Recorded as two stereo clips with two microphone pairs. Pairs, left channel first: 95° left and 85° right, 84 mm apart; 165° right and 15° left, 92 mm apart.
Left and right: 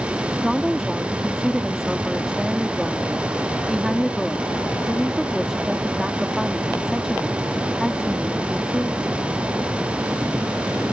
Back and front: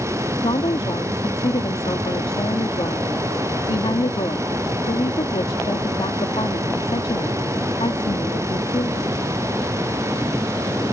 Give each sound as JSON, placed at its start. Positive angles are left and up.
{"t": 0.4, "sound": "a woman speaking", "azimuth_deg": -170}